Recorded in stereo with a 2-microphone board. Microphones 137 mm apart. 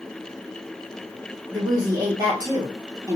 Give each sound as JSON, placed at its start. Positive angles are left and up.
{"t": 1.5, "sound": "a woman speaking", "side_deg": -30, "distance_m": 1.1}